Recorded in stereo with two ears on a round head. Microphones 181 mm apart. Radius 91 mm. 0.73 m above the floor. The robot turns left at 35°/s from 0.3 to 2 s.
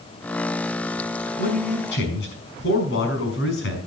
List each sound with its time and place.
1.4 s a man speaking: 45° left (ahead or behind), 5.5 m; by 3.8 s 65° left (ahead or behind), 5.5 m